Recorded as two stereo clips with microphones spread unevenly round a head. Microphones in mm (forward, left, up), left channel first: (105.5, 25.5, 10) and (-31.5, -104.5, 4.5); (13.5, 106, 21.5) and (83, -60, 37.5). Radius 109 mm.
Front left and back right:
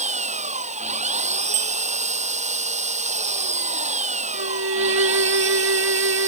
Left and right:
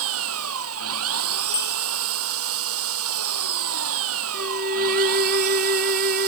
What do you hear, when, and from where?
0.0 s an engine running: 80° right
1.5 s a bicycle bell: 175° right
4.3 s a violin: 120° right